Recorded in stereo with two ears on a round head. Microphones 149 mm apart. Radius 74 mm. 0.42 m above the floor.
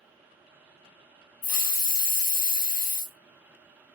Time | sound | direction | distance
1.4 | a hiss | 55° left (ahead or behind) | 0.6 m